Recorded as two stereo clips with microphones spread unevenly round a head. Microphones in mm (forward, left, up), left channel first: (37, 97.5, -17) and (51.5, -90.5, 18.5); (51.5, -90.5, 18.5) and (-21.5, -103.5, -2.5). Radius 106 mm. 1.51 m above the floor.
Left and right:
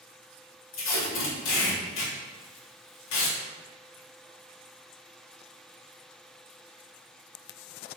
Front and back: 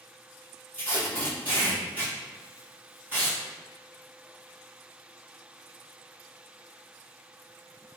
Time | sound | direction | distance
0.7 | tape being pulled | 105° left | 0.9 m